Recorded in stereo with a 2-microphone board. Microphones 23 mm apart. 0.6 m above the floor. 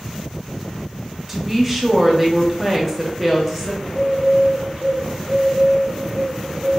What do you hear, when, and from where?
1.3 s a woman speaking: 5° right (ahead or behind), 0.7 m
3.8 s a bird: 55° right (ahead or behind), 0.9 m